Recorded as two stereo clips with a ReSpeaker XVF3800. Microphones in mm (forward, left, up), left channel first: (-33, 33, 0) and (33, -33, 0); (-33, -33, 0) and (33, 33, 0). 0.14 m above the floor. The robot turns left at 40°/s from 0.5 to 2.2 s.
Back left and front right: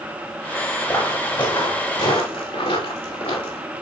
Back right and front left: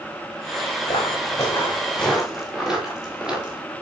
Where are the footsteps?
165° right, 6 m; by 3.6 s 125° left, 5 m.